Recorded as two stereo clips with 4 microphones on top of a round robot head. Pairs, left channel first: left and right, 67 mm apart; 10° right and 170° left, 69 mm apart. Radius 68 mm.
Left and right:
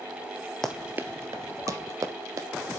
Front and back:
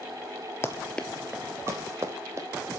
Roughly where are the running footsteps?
Ahead.